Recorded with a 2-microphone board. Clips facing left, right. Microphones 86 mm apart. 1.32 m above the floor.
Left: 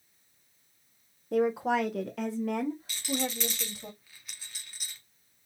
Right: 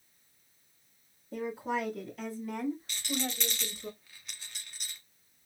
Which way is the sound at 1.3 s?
70° left (ahead or behind).